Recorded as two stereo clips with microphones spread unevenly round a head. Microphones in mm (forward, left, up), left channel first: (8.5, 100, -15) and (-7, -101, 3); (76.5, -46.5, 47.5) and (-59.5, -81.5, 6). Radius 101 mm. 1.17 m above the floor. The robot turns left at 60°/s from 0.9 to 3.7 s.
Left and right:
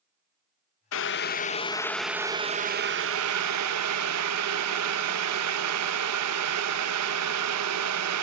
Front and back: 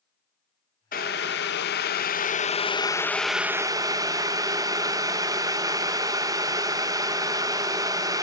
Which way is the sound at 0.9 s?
65° left.